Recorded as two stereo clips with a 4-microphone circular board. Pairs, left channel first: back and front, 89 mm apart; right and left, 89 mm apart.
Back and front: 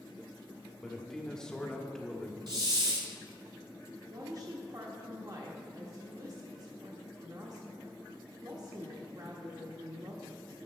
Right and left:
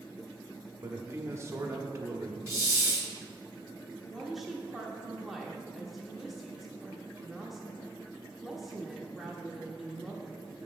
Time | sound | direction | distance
0.8 | a man speaking | 105° left | 1.0 m
2.5 | a hiss | 35° left | 1.3 m
4.1 | a woman speaking | straight ahead | 1.0 m